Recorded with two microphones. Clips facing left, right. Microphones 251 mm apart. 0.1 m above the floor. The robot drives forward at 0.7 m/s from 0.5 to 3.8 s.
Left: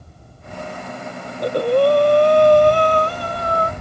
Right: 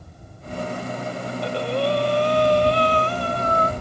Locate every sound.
1.3 s breathing: 40° left (ahead or behind); by 3.7 s 35° left (ahead or behind)